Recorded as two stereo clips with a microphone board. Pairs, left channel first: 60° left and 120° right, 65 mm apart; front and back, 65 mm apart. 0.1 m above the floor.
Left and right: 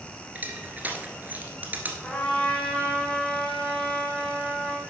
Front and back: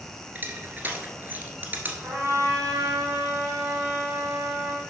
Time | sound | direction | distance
0.3 | crushing | 155° right | 1.8 m
2.0 | a trumpet | 135° left | 3.5 m